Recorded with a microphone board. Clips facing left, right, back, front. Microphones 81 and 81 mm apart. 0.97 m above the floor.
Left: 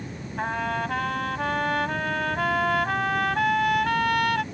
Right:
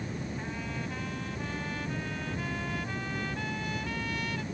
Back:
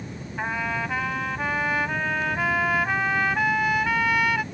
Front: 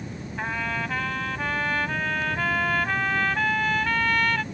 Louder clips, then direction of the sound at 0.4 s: Left 10 dB, back 2 dB; 100° left.